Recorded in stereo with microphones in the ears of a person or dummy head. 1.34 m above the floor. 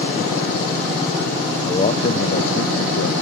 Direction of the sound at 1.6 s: 20° left (ahead or behind).